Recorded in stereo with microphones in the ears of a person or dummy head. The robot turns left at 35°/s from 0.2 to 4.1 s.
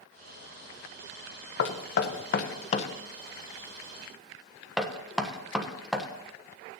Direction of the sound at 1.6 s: 75° left (ahead or behind).